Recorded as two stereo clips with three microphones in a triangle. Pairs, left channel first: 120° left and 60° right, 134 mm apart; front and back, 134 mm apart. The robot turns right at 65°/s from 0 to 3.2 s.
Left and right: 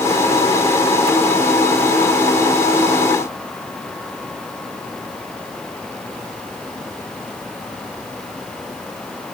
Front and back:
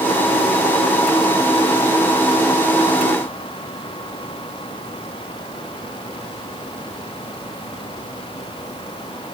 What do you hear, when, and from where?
Only background noise.